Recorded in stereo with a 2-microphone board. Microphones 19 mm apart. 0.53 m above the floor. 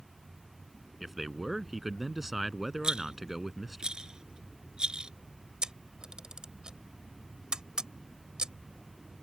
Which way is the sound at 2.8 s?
50° right (ahead or behind).